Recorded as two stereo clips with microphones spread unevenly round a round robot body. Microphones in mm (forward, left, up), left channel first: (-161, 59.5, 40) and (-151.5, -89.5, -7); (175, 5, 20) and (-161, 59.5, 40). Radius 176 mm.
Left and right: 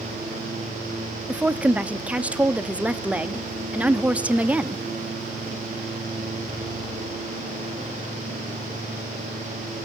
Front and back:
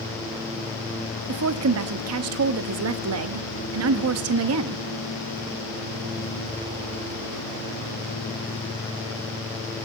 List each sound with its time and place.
1.3 s a woman speaking: 150° right, 0.8 m